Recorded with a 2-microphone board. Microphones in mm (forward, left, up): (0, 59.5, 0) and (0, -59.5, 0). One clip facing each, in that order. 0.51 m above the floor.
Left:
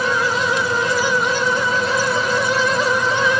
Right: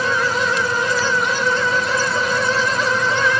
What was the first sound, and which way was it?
Only background noise.